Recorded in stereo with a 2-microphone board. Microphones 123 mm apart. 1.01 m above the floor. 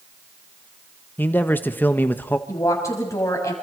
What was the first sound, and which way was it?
A man speaking, 15° left (ahead or behind).